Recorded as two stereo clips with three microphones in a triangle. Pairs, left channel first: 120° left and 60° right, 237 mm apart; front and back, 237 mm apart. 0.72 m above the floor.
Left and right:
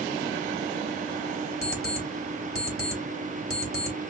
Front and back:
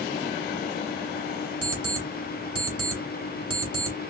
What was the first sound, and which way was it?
An alarm clock, 10° right.